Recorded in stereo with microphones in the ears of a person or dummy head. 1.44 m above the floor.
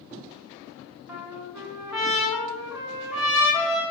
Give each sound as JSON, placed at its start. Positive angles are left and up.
{"t": 1.1, "sound": "a trumpet", "side_deg": -5, "distance_m": 2.5}